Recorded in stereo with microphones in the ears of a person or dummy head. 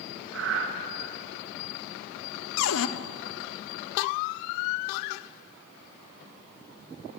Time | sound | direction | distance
0.3 | breathing | 75° right (ahead or behind) | 1.6 m
2.6 | a cupboard door | 70° left (ahead or behind) | 0.7 m